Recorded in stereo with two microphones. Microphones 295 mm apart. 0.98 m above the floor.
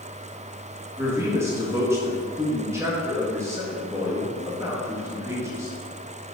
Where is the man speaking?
10° right (ahead or behind), 1.5 m.